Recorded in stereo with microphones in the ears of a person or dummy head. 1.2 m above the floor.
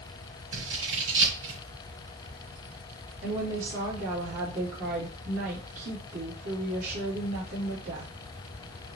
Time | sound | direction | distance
0.5 | scissors | 75° right (ahead or behind) | 3 m
3.2 | a woman speaking | 75° right (ahead or behind) | 2.5 m